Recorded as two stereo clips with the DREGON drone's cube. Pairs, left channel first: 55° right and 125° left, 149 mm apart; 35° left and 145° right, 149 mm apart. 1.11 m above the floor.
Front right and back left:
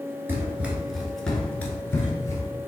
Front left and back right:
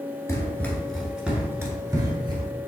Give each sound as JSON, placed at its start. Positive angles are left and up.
{"t": 0.3, "sound": "running footsteps", "azimuth_deg": 75, "distance_m": 1.1}